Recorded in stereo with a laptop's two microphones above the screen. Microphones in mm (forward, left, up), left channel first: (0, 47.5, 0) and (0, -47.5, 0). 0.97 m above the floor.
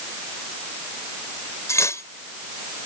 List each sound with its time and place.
1.7 s cutlery clinking: 35° left (ahead or behind)